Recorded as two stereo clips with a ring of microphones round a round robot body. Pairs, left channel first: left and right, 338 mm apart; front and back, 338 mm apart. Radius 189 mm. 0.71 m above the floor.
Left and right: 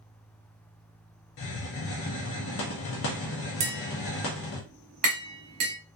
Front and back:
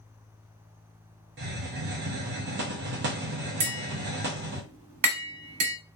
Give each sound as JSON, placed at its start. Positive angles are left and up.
{"t": 1.4, "sound": "a hiss", "azimuth_deg": 130, "distance_m": 0.5}
{"t": 3.6, "sound": "tapping", "azimuth_deg": -140, "distance_m": 0.8}